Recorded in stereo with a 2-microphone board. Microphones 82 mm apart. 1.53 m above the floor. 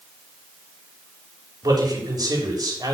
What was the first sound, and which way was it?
A man speaking, 55° right (ahead or behind).